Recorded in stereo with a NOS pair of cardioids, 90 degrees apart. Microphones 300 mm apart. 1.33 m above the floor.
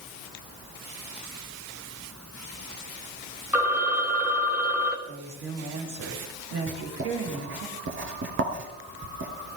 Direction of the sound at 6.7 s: 40° right.